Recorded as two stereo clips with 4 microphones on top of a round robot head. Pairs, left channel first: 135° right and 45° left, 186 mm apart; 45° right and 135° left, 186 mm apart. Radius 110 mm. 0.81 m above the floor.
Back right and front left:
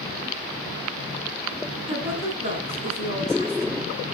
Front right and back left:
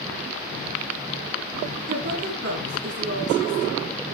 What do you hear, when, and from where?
1.9 s a woman speaking: 105° left, 8 m